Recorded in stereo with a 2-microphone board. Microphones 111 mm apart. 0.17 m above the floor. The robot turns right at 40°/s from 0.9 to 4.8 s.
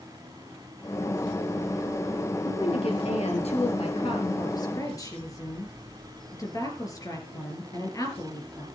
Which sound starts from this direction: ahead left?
A woman speaking, at 2.5 s.